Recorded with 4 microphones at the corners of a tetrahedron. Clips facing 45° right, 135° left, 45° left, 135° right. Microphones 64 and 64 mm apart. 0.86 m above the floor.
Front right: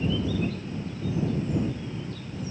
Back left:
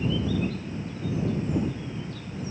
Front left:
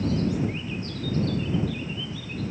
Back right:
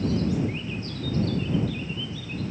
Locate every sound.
Only background noise.